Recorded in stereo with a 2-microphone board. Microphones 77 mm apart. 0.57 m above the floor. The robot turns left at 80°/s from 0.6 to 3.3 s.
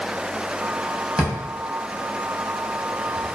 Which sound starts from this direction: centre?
A drawer, at 1.2 s.